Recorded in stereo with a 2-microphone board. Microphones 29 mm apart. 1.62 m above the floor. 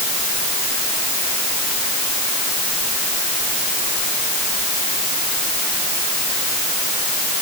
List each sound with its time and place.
Only background noise.